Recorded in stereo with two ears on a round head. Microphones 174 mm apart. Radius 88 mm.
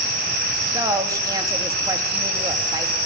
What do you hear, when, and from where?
0.7 s a woman speaking: 20° right (ahead or behind), 3 m